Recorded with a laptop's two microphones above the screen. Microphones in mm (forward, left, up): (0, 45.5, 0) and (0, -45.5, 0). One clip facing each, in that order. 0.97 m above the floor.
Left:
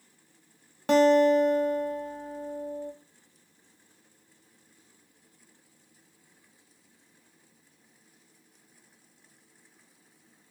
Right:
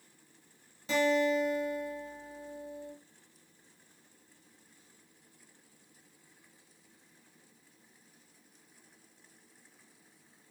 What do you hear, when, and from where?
0.9 s a guitar: 65° left (ahead or behind), 0.6 m